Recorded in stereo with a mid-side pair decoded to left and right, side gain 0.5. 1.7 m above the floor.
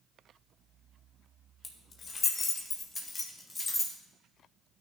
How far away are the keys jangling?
About 1.7 m.